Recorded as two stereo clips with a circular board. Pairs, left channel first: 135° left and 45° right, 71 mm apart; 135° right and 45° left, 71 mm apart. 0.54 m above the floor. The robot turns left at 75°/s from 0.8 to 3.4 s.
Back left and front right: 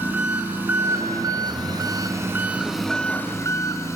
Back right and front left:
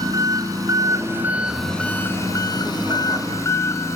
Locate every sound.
0.0 s an engine running: 15° left, 1.8 m; by 4.0 s straight behind, 1.8 m